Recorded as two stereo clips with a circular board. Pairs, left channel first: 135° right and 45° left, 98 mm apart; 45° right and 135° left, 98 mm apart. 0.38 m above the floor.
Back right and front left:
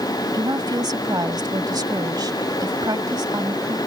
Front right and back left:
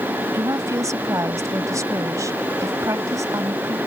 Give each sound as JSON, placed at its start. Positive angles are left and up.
{"t": 0.3, "sound": "a woman speaking", "azimuth_deg": 85}